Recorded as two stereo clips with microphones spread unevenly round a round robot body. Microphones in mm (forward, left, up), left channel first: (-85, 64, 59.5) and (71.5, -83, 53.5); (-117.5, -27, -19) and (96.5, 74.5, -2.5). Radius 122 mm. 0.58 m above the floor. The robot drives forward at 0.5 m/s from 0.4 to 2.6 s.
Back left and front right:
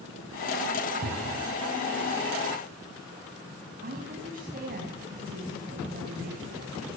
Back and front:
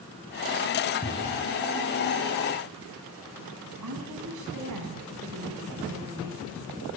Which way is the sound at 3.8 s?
10° left.